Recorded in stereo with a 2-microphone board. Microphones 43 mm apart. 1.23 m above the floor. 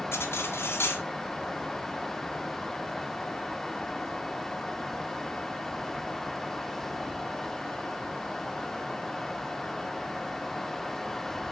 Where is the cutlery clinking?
75° left (ahead or behind), 1.6 m.